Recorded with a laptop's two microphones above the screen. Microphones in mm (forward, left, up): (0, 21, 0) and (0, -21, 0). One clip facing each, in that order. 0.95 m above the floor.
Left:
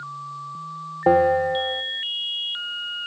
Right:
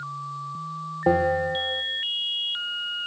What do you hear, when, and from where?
1.1 s a bell: 20° left (ahead or behind), 1.1 m